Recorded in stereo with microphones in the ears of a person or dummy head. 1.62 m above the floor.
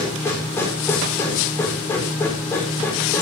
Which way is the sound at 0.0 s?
15° left (ahead or behind).